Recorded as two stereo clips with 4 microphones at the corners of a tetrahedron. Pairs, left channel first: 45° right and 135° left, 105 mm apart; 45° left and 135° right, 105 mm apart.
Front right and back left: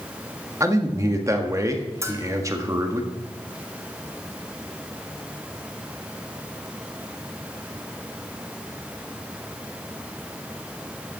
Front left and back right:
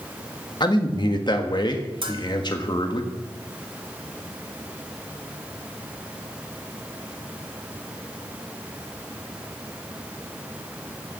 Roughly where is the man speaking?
Left.